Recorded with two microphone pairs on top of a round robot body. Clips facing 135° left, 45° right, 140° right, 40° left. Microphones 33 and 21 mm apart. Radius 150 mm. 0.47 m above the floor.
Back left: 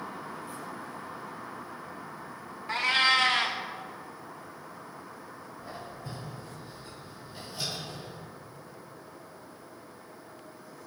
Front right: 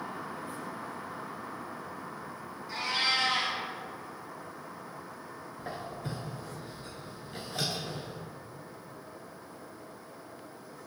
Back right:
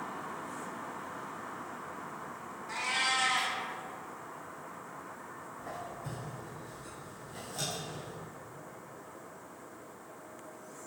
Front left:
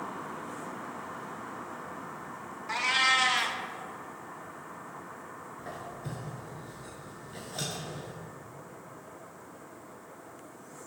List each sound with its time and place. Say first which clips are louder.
2.7 s a cat meowing: back left 6 dB, front left 6 dB; 100° left, 0.6 m
5.6 s a squeak: front right 4 dB, even; 10° right, 0.6 m